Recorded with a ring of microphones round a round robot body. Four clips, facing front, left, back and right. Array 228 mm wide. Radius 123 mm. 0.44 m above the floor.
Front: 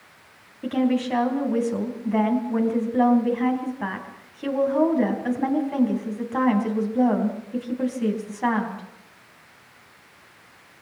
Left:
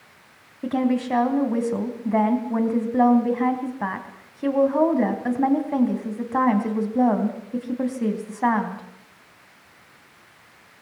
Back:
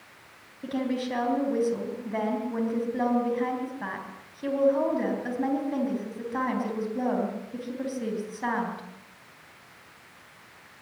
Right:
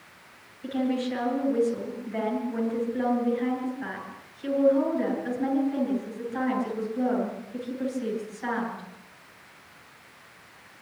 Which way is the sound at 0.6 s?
80° left.